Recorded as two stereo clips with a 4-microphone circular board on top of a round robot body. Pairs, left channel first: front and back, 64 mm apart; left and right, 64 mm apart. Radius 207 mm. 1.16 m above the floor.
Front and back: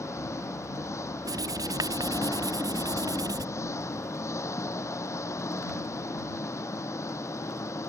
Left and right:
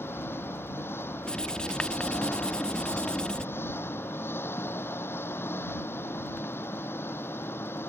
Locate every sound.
0.0 s an engine running: 40° left
1.2 s writing: 170° left